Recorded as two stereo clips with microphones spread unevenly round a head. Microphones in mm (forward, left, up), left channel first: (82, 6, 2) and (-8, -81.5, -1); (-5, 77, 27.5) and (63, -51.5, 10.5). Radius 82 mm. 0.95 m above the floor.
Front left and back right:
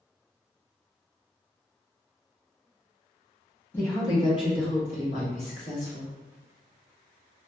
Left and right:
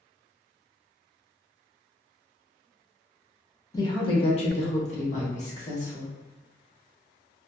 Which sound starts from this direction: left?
A woman speaking, at 3.7 s.